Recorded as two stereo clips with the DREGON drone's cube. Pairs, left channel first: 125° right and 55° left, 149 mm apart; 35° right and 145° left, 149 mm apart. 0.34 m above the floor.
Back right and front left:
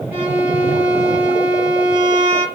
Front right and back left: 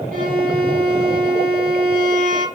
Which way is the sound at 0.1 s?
135° left.